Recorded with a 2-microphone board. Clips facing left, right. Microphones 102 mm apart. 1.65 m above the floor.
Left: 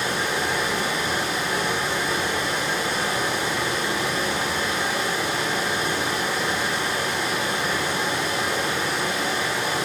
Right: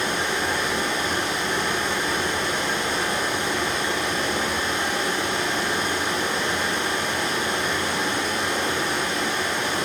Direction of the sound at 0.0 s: Centre (ahead or behind).